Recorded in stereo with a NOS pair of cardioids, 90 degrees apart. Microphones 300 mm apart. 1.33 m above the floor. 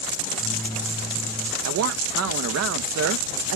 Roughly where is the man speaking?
Ahead right.